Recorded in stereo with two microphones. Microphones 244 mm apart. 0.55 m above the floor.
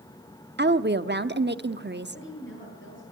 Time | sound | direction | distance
0.6 | a woman speaking | 45° right (ahead or behind) | 0.8 m
2.1 | a woman speaking | 50° left (ahead or behind) | 10 m